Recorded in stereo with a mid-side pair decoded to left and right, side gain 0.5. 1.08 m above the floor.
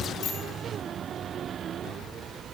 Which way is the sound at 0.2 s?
65° left.